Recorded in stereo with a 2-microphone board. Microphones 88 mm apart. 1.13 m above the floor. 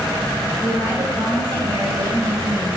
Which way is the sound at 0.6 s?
75° right (ahead or behind).